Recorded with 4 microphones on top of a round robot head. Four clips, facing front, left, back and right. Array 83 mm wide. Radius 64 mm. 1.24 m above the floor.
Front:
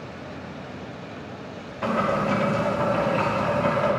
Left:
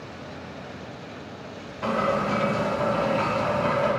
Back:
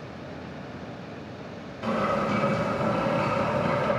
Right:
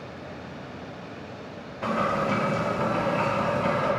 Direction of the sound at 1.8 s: Straight ahead.